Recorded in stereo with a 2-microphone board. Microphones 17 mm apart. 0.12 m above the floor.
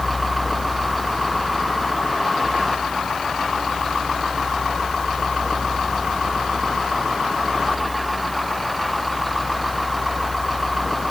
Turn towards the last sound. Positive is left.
No sound to turn to.